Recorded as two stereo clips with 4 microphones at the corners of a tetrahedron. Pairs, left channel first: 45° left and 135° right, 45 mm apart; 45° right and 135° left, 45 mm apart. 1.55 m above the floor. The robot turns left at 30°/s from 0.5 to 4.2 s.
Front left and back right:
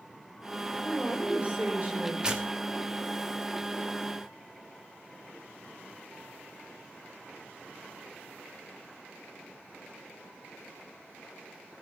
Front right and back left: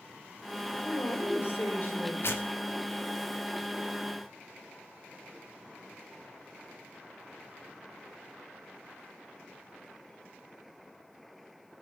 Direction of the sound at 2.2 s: 65° right.